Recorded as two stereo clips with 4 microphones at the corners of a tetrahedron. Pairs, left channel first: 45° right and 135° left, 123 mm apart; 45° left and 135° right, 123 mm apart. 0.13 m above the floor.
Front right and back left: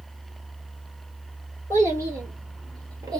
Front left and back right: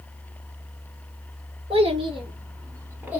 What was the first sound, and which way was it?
A child speaking, 160° right.